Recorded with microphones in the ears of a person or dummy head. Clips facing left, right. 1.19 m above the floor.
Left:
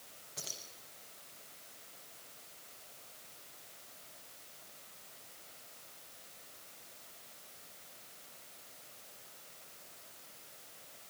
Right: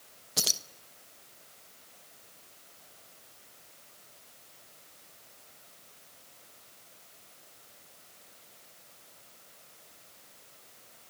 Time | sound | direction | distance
0.4 | keys jangling | 80° right | 0.9 m